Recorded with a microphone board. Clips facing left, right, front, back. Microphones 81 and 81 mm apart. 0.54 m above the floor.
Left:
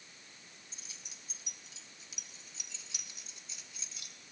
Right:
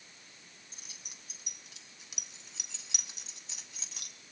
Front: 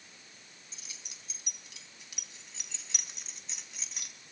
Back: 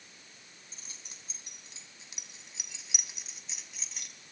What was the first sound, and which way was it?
Keys jangling, 125° right.